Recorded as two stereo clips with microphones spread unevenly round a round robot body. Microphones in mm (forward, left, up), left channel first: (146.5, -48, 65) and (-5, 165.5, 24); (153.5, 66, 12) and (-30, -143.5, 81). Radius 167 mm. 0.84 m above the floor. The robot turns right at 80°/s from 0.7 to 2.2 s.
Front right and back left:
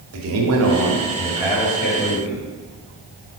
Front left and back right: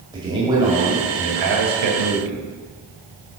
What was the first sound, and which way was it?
A man speaking, 150° left.